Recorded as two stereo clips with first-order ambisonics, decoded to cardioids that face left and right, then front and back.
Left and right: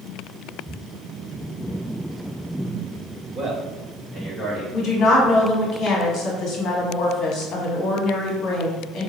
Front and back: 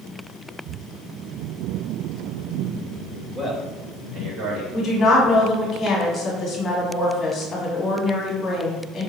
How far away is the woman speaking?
About 1.0 m.